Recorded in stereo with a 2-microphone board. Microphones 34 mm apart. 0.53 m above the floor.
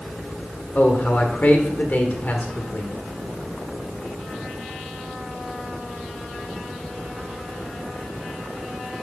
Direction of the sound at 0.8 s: 50° left (ahead or behind).